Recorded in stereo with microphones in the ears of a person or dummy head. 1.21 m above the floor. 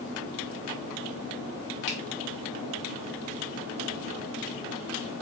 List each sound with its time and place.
1.9 s a finger snap: 65° left (ahead or behind), 0.9 m